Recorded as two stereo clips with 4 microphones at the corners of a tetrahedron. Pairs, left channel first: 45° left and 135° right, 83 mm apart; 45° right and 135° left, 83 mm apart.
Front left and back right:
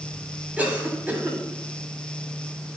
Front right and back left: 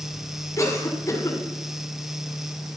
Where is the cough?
70° right, 1.5 m.